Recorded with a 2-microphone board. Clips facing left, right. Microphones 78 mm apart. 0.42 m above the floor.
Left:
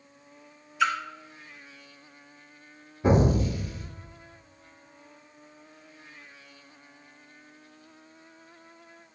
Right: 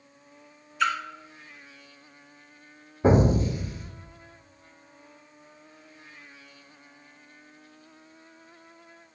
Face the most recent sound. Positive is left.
turn(degrees=-30)  # may be behind; listen again after turning